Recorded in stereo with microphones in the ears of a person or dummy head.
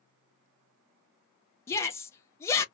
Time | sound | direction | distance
1.7 | a shout | 15° left (ahead or behind) | 0.5 m